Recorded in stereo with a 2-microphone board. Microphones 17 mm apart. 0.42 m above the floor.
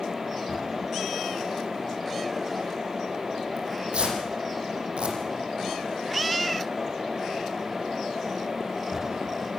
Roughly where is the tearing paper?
Right.